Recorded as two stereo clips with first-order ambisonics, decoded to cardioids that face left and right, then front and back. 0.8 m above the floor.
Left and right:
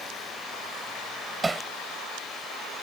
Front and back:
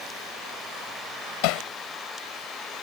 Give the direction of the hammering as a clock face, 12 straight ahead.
12 o'clock.